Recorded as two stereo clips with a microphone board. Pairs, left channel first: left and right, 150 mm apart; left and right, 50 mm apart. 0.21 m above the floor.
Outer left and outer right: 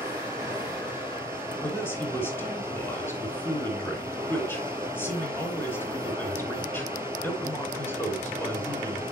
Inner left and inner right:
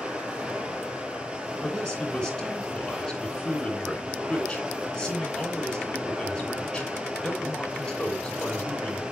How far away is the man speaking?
About 2.5 m.